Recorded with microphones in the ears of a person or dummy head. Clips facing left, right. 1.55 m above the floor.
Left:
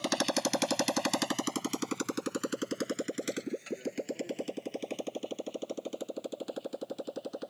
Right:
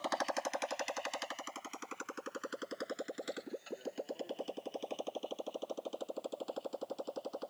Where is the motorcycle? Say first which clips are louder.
Left 6 dB; 45° left (ahead or behind); by 7.5 s 20° left (ahead or behind).